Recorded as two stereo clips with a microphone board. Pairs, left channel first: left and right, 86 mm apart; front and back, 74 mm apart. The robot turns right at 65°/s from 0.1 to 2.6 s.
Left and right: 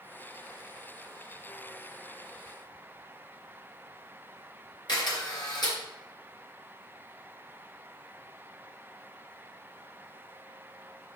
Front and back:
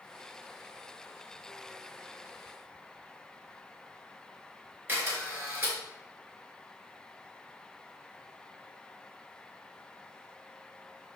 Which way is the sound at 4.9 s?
120° left.